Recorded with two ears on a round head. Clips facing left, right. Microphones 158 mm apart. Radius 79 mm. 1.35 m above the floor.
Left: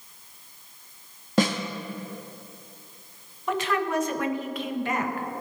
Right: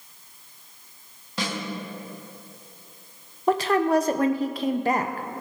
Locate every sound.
1.4 s a snare drum: 40° left (ahead or behind), 1.3 m
3.5 s a woman speaking: 35° right (ahead or behind), 0.8 m